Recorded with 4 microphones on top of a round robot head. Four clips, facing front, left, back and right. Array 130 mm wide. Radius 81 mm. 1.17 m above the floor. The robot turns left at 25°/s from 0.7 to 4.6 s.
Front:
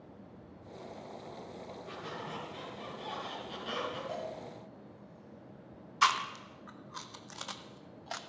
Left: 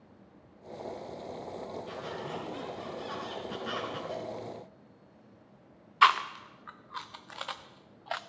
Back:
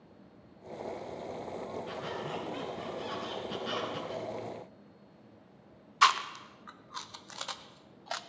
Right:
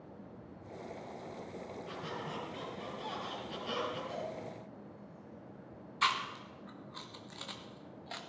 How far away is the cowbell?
About 8.5 m.